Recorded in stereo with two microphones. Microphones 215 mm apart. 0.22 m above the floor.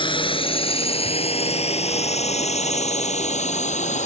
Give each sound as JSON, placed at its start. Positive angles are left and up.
{"t": 0.0, "sound": "a drone", "side_deg": 25}